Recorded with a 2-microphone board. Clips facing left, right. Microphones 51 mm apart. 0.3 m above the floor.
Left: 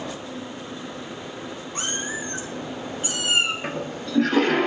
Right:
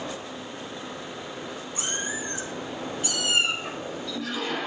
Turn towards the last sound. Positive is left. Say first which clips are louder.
# left 3 dB
turn(degrees=65)  # may be behind; listen again after turning